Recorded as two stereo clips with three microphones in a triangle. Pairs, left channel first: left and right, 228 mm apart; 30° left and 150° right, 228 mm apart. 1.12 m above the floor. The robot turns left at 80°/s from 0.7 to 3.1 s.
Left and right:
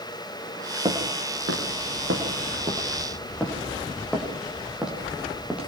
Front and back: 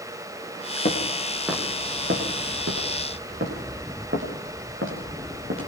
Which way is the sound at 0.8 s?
20° right.